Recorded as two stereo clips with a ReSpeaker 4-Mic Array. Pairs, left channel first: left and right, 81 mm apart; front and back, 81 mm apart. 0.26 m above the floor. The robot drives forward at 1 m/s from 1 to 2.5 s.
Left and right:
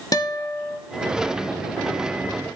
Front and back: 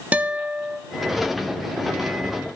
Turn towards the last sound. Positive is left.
turn(degrees=165)